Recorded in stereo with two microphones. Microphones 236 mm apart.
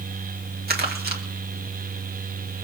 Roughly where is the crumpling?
Right.